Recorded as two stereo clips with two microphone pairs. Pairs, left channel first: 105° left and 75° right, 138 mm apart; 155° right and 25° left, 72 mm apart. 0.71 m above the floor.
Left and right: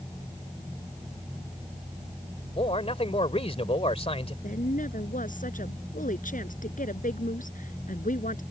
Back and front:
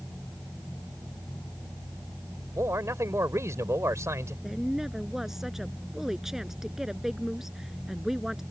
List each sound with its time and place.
2.6 s a man speaking: 70° left
4.4 s a woman speaking: 110° left